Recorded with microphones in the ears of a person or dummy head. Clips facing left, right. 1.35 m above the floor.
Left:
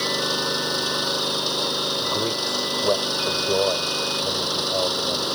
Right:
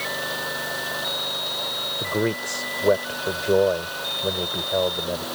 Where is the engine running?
65° left (ahead or behind).